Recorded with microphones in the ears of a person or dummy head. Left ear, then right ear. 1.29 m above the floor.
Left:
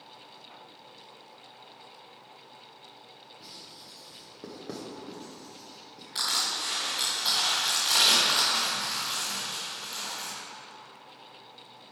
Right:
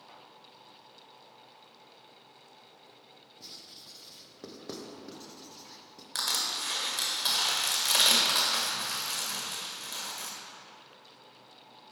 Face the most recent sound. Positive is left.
turn(degrees=-35)  # may be behind; listen again after turning